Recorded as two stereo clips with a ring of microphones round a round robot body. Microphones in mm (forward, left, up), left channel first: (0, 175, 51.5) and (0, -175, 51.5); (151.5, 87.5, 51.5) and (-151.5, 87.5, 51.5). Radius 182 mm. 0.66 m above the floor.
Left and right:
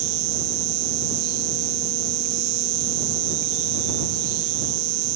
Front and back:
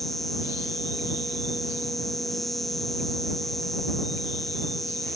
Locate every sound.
0.0 s an insect: 90° right